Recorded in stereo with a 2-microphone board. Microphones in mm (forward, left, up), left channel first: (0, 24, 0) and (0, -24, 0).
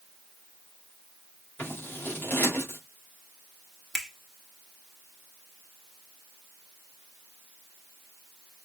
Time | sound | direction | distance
1.6 | scissors | 40° left (ahead or behind) | 2 m
3.9 | a finger snap | 5° left (ahead or behind) | 1.0 m